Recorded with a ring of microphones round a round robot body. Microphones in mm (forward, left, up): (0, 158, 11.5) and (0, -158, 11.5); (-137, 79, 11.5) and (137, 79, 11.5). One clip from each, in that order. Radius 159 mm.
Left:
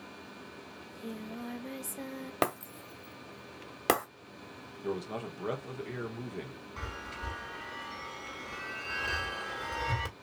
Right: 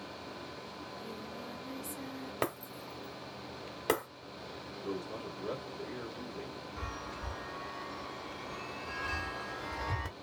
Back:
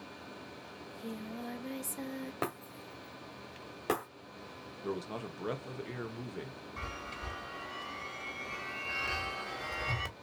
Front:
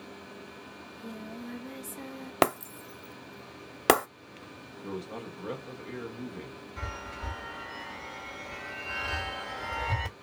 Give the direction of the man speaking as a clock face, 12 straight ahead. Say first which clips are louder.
Left 4 dB, even; 7 o'clock.